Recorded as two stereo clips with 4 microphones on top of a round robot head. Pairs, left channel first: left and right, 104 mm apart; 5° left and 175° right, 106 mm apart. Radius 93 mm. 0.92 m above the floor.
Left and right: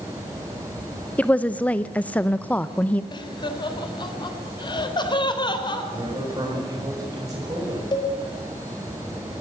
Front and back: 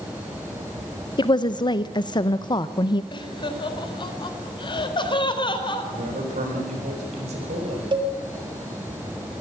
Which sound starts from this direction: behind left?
A cowbell, at 7.9 s.